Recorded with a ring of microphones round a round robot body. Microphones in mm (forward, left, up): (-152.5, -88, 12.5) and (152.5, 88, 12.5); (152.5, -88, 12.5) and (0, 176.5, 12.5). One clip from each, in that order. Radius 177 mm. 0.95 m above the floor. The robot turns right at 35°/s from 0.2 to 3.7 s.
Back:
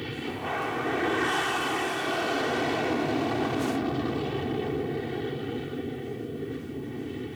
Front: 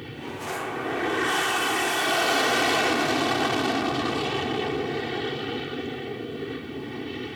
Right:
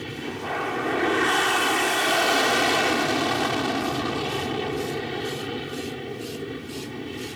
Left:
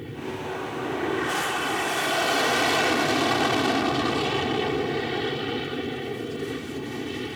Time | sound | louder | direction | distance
0.0 | an aircraft | back 2 dB, right 2 dB | 75° right | ?